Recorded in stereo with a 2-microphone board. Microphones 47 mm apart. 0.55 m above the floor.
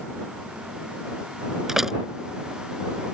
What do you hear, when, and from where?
1.7 s a door slam: 5° right (ahead or behind)